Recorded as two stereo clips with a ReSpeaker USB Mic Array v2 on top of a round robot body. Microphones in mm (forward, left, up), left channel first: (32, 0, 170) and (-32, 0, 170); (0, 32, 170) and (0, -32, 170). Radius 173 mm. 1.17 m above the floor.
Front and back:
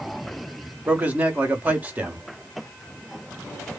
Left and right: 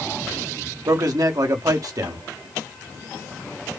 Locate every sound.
0.9 s a man speaking: 115° right, 1.5 m